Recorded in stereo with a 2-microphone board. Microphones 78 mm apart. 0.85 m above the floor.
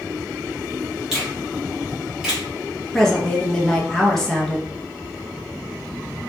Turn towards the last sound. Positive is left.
turn(degrees=5)  # may be behind; listen again after turning